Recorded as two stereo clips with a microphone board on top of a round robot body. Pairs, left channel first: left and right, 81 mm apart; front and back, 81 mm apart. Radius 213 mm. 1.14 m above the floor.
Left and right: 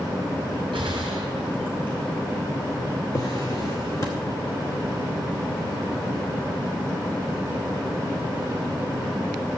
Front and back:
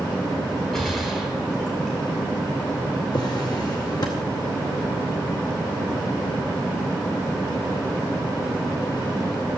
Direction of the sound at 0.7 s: 80° right.